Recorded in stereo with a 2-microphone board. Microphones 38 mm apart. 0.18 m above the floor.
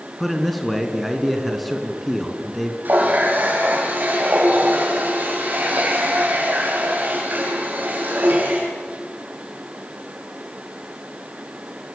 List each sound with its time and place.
0.2 s a man speaking: 5° right (ahead or behind), 2.5 m
2.9 s a running tap: 50° right (ahead or behind), 5.5 m